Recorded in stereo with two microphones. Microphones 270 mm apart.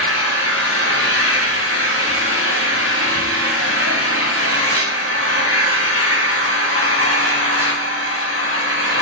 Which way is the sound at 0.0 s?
50° right (ahead or behind).